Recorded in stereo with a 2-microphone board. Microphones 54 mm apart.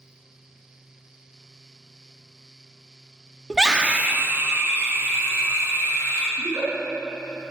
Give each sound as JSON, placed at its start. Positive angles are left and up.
{"t": 3.5, "sound": "a scream", "side_deg": -5, "distance_m": 0.9}
{"t": 6.4, "sound": "a giggle", "side_deg": -75, "distance_m": 5.5}